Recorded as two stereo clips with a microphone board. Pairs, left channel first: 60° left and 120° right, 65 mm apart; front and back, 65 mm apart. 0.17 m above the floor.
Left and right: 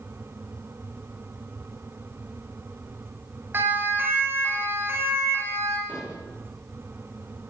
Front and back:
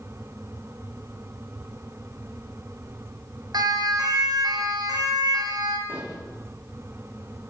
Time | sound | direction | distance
3.5 | a siren | 175° right | 9 m
5.9 | dishes clattering | 130° left | 9.5 m